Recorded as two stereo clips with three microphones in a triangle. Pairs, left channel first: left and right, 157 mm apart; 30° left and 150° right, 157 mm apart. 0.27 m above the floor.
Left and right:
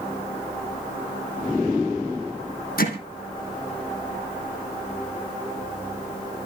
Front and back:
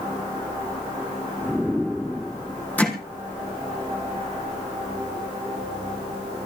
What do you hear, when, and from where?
2.8 s hammering: 110° left, 4.5 m